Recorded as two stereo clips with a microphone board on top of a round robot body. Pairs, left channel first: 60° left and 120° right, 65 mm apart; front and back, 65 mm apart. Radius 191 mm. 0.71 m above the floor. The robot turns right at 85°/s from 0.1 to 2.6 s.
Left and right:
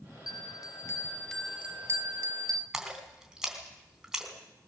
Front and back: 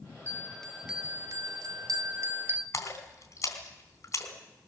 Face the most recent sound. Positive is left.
turn(degrees=-35)